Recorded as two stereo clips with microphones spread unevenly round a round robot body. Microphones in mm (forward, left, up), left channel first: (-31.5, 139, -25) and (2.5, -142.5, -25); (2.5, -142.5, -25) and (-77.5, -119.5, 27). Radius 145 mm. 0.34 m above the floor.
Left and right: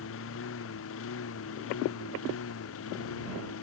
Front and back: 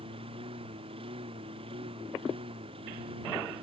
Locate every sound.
0.0 s a lawn mower: 145° left; by 3.6 s 140° left